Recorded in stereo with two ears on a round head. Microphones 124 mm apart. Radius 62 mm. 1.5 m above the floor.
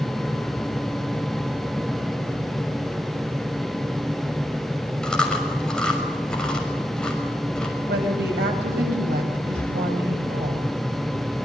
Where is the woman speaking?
80° right, 9 m.